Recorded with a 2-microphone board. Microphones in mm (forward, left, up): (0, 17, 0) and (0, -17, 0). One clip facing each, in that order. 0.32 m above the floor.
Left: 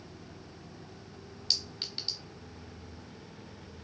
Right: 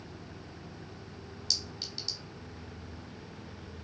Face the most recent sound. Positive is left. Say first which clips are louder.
# left 2 dB
turn(degrees=40)  # may be behind; listen again after turning